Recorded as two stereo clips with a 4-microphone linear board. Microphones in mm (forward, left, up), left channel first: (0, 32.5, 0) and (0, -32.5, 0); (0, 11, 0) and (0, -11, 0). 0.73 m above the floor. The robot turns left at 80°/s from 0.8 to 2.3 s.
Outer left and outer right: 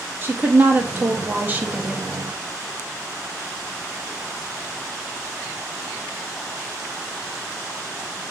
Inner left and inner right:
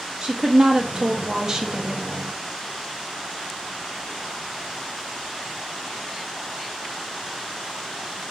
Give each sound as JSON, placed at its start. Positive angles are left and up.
{"t": 0.2, "sound": "a woman speaking", "azimuth_deg": -65, "distance_m": 0.9}